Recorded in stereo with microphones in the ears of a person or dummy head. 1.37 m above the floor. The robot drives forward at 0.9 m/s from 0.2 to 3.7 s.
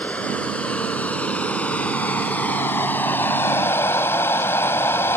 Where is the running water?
5° left (ahead or behind); by 5.2 s 10° left (ahead or behind).